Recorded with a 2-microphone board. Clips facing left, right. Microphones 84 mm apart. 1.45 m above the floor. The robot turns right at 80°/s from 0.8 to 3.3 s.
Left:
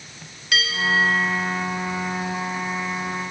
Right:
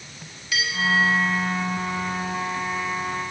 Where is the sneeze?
I don't hear a sneeze.